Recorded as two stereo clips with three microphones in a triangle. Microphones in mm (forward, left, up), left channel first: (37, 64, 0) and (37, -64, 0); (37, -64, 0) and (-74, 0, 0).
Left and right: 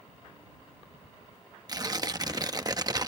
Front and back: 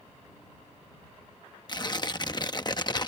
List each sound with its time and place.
1.7 s tearing paper: 55° right